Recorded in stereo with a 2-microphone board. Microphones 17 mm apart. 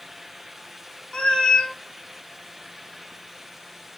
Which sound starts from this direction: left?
A cat meowing, at 1.1 s.